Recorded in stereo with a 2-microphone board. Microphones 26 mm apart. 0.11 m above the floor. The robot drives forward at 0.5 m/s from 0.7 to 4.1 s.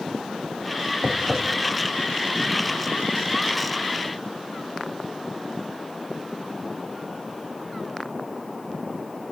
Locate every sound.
1.0 s tapping: 30° right (ahead or behind), 5.5 m; by 1.4 s 35° right (ahead or behind), 5.5 m